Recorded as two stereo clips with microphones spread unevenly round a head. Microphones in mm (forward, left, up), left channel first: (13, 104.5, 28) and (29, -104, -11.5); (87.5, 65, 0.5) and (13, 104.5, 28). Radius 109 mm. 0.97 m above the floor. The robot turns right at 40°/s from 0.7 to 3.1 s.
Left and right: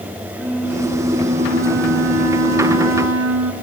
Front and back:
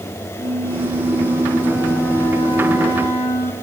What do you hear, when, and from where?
0.4 s a flute: straight behind, 4.5 m; by 3.5 s 85° right, 4.5 m